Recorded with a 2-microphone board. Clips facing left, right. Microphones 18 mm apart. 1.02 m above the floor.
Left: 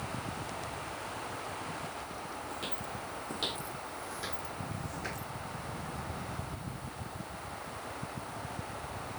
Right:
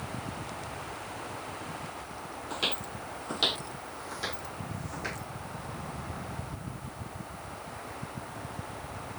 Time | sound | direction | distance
2.5 | footsteps | 50° right (ahead or behind) | ?